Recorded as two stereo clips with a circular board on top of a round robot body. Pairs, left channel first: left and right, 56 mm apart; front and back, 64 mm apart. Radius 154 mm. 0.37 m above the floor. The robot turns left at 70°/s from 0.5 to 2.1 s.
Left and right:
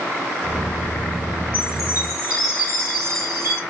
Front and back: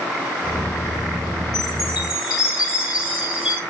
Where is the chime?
135° left, 5 m; by 3.6 s 95° left, 5 m.